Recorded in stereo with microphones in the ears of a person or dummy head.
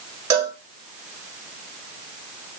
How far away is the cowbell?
About 1.2 m.